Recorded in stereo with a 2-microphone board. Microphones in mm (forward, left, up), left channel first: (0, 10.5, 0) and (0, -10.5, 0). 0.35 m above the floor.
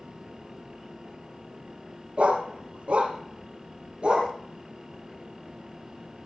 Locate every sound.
2.2 s a dog barking: 75° right (ahead or behind), 2.5 m; by 4.3 s 60° right (ahead or behind), 3 m